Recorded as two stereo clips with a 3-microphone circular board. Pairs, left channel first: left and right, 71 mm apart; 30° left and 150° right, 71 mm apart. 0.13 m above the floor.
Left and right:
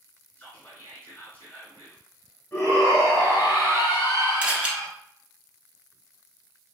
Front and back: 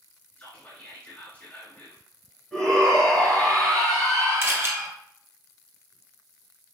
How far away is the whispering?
About 1.6 m.